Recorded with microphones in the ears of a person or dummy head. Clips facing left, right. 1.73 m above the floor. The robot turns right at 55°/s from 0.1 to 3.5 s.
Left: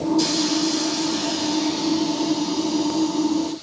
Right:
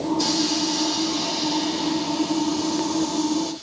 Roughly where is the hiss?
Left.